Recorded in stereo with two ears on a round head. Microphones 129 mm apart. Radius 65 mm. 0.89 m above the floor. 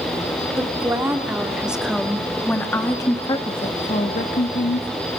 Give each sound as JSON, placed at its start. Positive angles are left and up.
{"t": 0.6, "sound": "a woman speaking", "side_deg": -20, "distance_m": 3.0}